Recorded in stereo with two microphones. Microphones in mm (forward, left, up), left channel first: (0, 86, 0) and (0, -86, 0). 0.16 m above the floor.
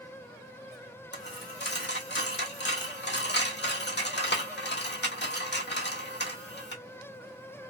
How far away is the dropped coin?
About 1.0 m.